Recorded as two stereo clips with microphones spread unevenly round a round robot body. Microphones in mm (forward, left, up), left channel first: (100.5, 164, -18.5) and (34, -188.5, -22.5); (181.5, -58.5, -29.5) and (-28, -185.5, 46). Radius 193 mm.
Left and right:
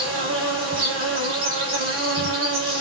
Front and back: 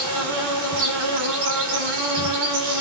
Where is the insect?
160° right, 2.5 m.